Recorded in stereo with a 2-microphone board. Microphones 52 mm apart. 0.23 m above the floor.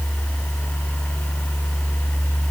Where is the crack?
No crack in this recording.